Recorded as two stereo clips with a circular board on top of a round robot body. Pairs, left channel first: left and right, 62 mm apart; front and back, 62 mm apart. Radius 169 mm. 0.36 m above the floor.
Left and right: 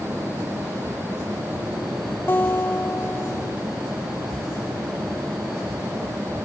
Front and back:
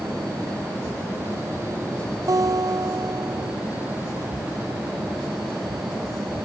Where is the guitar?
150° left.